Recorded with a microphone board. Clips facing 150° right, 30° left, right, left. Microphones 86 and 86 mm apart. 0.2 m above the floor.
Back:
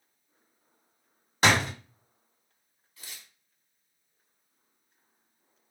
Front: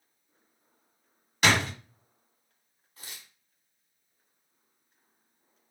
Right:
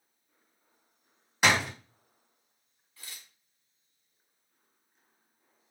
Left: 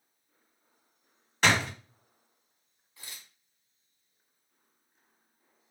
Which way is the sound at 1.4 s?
165° right.